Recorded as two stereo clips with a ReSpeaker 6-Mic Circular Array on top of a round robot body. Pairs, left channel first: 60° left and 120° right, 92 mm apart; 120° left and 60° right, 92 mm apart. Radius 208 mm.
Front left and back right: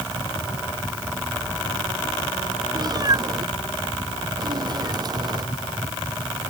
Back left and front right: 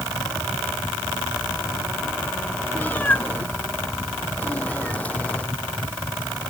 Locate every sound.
2.8 s a cat meowing: 165° right